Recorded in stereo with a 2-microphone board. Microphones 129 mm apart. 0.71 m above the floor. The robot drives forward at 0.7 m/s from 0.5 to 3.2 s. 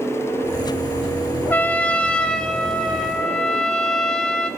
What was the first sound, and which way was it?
A trumpet, 15° left (ahead or behind).